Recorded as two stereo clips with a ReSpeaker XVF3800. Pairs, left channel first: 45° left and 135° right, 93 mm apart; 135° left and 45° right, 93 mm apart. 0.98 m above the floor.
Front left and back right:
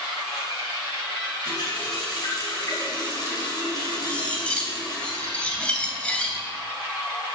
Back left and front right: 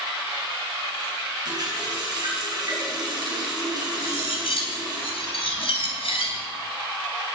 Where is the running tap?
Straight ahead, 5.5 m.